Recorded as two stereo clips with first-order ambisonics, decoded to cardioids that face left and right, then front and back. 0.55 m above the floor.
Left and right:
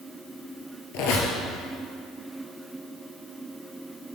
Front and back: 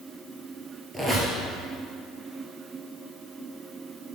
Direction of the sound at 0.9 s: 100° left.